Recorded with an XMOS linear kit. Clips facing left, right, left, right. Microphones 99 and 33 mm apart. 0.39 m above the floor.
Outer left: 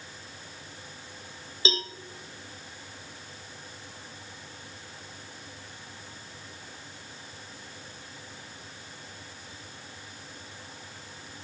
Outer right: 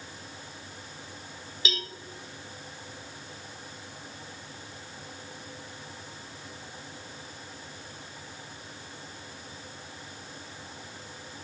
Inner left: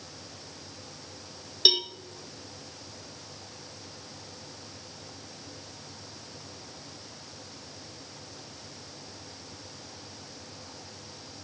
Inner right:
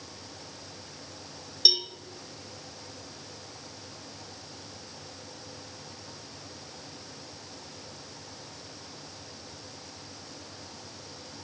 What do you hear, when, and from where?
1.6 s a cowbell: 30° left (ahead or behind), 0.7 m